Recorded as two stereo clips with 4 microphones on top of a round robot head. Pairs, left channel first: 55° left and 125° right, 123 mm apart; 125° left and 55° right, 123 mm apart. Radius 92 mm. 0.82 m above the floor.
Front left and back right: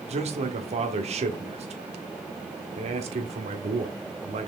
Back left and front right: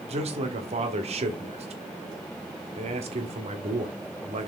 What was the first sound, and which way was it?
A man speaking, 90° right.